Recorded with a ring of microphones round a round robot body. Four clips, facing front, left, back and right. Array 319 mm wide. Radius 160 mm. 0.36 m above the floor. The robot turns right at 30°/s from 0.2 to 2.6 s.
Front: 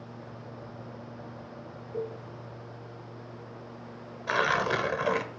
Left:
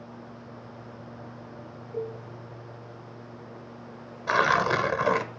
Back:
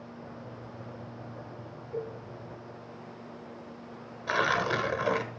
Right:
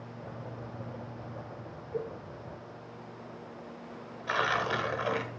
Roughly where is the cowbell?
Behind.